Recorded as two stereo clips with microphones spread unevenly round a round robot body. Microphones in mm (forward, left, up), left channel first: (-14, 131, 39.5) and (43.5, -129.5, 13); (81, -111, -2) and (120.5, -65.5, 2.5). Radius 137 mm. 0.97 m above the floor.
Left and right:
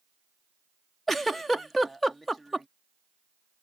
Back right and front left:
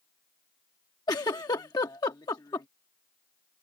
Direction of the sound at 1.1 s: 170° right.